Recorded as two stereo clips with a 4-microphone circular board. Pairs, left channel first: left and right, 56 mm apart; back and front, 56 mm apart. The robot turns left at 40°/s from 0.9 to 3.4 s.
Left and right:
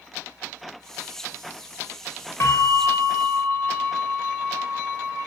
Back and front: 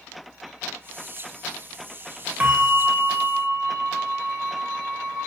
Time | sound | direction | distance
2.4 | a bell | 60° left | 3.5 m